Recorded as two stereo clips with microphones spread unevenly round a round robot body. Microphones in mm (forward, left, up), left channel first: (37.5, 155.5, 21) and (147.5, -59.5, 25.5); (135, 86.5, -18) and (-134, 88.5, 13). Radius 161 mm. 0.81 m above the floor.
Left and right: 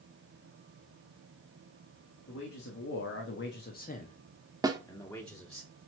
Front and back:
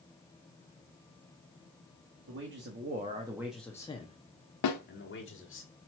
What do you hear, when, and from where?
2.3 s a man speaking: 140° left, 1.6 m; by 5.6 s 30° left, 2.5 m
4.6 s a snare drum: 10° left, 1.3 m